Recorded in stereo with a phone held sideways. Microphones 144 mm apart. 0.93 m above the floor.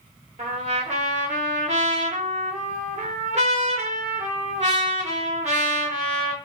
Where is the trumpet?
55° right (ahead or behind), 0.8 m.